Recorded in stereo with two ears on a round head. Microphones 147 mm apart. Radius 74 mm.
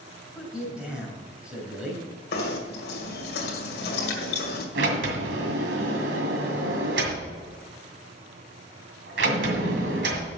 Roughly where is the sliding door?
Right.